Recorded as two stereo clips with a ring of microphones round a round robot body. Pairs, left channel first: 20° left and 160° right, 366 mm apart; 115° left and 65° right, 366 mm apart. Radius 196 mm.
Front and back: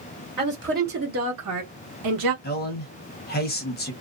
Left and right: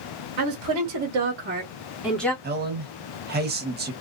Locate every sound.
0.4 s a woman speaking: 80° right, 1.3 m; by 2.3 s 165° right, 1.1 m
2.4 s a man speaking: 25° right, 1.0 m